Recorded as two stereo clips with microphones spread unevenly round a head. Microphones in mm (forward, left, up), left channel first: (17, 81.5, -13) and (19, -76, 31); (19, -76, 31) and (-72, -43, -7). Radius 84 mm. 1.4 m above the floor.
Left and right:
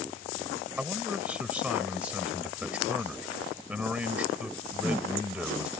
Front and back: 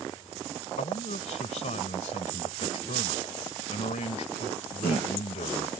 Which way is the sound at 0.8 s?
10° right.